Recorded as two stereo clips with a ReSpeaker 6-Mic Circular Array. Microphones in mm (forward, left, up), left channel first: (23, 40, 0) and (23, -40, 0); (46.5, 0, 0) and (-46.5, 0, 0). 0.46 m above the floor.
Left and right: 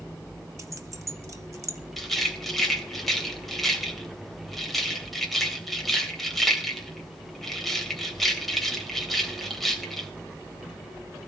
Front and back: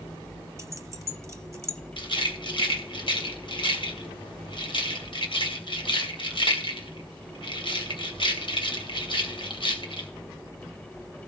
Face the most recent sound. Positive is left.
turn(degrees=0)